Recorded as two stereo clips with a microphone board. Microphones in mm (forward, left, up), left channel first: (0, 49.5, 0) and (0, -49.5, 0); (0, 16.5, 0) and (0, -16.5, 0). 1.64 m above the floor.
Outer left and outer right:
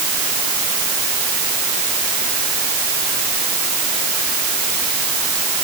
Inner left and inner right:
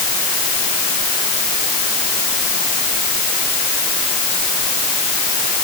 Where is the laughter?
No laughter in this recording.